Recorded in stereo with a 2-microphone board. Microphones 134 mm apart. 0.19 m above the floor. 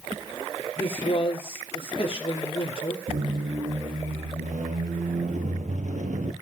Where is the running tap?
No running tap in this recording.